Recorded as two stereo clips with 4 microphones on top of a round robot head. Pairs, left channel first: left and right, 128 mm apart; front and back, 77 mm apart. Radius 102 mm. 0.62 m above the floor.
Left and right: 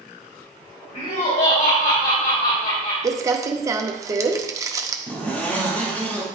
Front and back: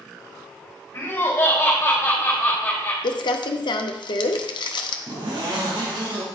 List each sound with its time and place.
0.9 s laughter: 50° left, 3.5 m; by 2.9 s 75° left, 3 m
3.0 s crumpling: 25° right, 0.6 m
5.1 s a zipper: 170° left, 2.5 m